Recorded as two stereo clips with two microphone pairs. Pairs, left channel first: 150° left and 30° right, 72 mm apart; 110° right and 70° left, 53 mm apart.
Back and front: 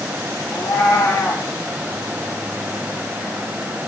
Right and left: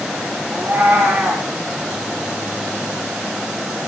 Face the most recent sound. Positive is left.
turn(degrees=125)